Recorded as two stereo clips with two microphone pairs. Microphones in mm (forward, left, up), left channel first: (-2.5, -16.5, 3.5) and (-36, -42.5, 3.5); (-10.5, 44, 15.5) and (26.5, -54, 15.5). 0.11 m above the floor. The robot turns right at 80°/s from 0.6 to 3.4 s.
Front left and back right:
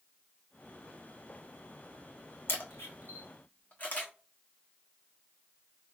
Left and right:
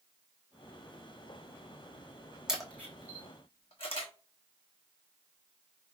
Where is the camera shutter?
15° left, 1.3 m; by 4.1 s 85° left, 1.3 m.